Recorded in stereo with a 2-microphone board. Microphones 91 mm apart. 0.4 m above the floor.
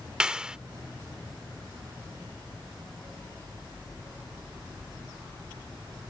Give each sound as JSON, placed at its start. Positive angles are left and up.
{"t": 0.2, "sound": "a clap", "side_deg": -10}